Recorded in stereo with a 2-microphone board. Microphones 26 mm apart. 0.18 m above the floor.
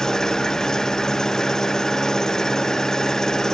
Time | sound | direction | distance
0.0 | an engine running | 20° left (ahead or behind) | ?